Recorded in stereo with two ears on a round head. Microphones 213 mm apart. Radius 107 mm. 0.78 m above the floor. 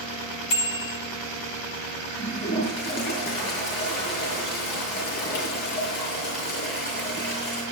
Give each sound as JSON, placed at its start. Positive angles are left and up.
{"t": 0.5, "sound": "a bicycle bell", "side_deg": 60, "distance_m": 3.0}
{"t": 2.2, "sound": "a toilet flushing", "side_deg": 45, "distance_m": 7.5}